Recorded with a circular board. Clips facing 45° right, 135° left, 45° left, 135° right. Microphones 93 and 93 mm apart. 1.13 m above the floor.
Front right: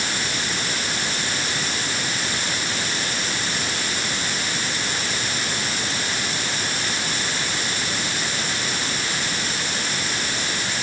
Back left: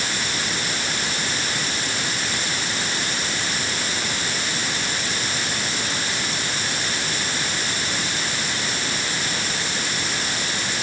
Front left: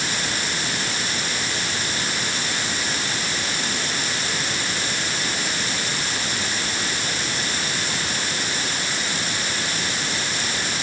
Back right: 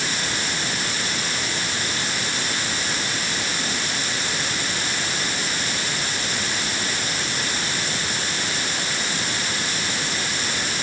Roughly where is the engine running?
No engine running in this recording.